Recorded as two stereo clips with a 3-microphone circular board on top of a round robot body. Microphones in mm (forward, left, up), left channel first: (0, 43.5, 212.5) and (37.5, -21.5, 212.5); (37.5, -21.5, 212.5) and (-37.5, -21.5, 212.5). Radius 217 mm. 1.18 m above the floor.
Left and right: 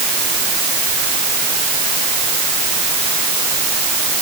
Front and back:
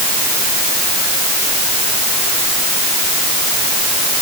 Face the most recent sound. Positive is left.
No sound to turn to.